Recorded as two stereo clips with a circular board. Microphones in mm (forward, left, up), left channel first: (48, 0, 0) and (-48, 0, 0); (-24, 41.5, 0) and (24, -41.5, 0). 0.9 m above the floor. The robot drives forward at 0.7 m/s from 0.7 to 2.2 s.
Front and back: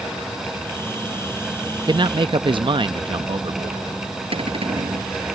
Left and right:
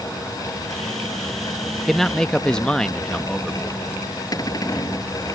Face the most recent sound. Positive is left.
turn(degrees=170)